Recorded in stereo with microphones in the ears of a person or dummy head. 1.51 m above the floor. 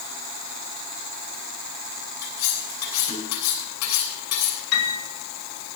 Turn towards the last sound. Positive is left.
turn(degrees=85)